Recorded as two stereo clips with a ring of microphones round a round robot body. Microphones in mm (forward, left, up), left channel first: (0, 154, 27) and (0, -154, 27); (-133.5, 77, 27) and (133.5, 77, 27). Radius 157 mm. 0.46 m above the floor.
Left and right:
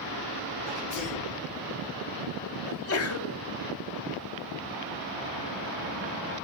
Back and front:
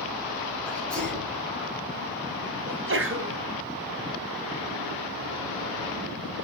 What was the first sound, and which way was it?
A sneeze, 95° left.